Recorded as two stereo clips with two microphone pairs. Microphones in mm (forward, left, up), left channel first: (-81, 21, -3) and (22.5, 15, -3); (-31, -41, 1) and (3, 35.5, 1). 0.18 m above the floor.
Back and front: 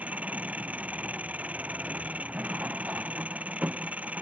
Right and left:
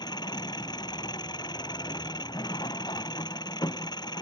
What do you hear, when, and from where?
0.0 s an engine running: 80° right